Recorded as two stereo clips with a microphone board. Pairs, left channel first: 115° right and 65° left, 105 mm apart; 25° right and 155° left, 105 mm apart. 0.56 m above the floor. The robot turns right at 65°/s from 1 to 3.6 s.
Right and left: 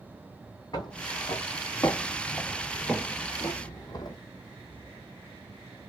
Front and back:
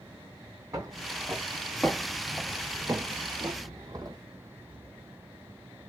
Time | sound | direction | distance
0.7 | footsteps | 155° right | 1.2 m